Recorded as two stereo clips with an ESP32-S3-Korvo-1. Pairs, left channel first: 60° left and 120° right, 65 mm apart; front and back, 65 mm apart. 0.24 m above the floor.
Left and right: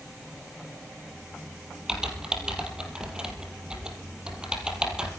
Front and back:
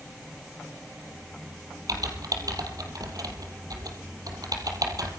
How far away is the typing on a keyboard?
About 4 m.